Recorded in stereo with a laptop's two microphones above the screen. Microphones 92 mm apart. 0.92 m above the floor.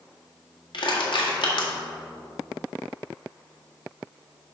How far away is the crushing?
About 1.7 m.